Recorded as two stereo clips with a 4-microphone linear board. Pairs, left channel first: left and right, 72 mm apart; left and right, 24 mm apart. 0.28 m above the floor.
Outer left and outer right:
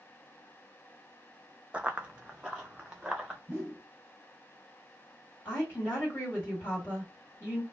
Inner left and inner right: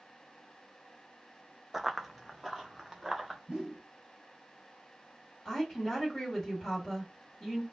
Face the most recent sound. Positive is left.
turn(degrees=25)  # may be behind; listen again after turning